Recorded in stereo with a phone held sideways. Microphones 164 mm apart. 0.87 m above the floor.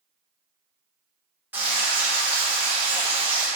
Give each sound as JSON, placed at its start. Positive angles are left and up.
{"t": 1.5, "sound": "frying", "side_deg": -10, "distance_m": 1.1}